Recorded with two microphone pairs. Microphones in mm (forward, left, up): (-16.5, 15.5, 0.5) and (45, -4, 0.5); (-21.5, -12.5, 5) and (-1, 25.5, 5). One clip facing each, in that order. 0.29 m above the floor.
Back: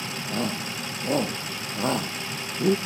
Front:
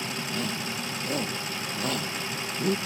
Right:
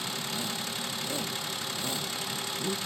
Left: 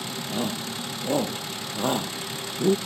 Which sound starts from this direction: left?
A shout, at 0.3 s.